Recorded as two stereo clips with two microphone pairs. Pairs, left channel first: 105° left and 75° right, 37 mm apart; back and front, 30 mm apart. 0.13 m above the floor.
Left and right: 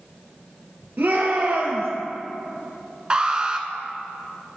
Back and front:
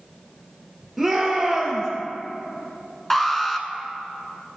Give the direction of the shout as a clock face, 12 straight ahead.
3 o'clock.